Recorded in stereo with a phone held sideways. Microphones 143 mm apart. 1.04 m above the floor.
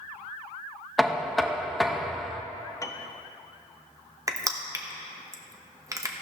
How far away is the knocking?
About 0.6 m.